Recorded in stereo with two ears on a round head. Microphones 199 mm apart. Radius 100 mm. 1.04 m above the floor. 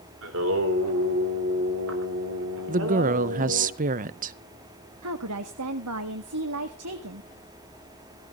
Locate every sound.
0.2 s singing: 65° right (ahead or behind), 3.5 m
2.7 s a woman speaking: 35° right (ahead or behind), 0.5 m
5.0 s a woman speaking: 75° right (ahead or behind), 1.5 m